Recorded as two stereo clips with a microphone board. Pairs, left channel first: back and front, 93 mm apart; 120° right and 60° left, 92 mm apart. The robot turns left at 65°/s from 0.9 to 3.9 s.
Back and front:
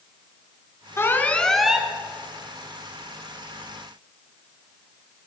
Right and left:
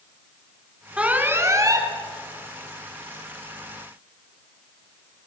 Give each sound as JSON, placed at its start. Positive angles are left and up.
{"t": 1.0, "sound": "an alarm", "azimuth_deg": 135, "distance_m": 1.1}